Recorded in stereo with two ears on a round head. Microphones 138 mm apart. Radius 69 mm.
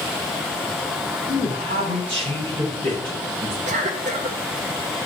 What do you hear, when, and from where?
1.3 s a man speaking: 40° right (ahead or behind), 6 m; by 3.6 s 35° right (ahead or behind), 9.5 m
3.7 s a cough: 50° right (ahead or behind), 1.8 m